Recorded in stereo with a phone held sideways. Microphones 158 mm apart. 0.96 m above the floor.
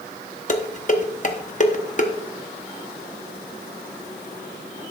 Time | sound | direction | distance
0.5 | dishes clattering | 50° left (ahead or behind) | 0.9 m